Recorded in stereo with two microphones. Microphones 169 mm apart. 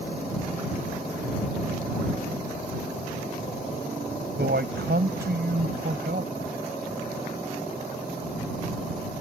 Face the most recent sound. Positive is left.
turn(degrees=-75)  # may be behind; listen again after turning